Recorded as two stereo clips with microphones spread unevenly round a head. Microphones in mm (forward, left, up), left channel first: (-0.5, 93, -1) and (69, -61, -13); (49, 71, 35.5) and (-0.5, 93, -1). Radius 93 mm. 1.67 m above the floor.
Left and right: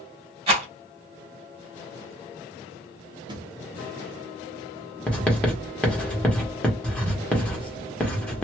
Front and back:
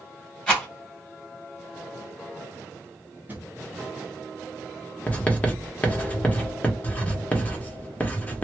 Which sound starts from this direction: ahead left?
Writing, at 5.1 s.